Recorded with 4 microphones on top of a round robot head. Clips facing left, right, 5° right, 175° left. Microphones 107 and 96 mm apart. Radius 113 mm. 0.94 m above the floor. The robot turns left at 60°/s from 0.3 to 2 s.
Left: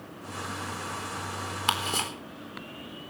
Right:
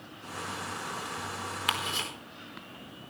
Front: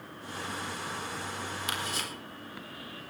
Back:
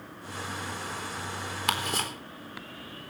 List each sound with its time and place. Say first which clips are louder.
1.7 s ticking: left 5 dB, back 9 dB; 150° left, 4 m; by 2.1 s 135° left, 4 m